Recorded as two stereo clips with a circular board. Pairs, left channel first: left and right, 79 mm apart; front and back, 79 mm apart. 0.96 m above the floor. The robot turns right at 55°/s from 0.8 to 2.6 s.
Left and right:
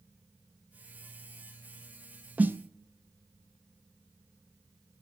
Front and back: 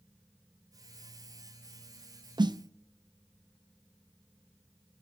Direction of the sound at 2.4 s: 160° right.